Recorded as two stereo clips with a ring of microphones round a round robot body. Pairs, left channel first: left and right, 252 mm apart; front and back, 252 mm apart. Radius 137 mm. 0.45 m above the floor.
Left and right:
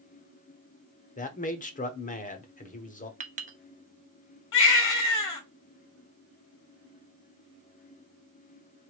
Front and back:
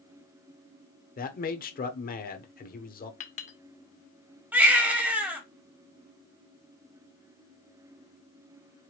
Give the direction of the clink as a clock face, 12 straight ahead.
2 o'clock.